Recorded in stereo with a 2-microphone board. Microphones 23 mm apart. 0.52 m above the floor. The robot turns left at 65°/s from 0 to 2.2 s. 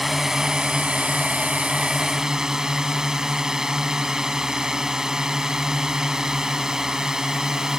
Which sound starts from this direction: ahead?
A drone, at 0.0 s.